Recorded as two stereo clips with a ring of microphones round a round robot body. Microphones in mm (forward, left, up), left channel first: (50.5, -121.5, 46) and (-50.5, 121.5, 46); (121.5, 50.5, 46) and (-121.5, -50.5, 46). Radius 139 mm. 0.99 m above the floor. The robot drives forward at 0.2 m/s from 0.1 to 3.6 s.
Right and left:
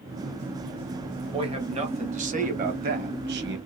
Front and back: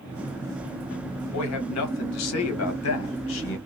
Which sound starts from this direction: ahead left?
A man speaking, at 1.3 s.